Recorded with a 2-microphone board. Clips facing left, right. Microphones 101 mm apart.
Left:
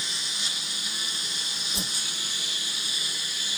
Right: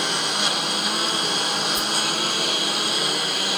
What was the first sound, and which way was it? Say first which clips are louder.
A lawn mower: right 14 dB; 60° right (ahead or behind).